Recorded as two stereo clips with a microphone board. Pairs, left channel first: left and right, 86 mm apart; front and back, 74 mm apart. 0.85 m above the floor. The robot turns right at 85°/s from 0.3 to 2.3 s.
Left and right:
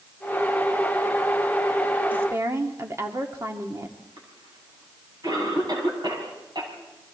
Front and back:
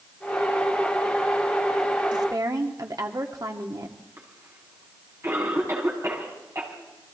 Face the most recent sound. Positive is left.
turn(degrees=-125)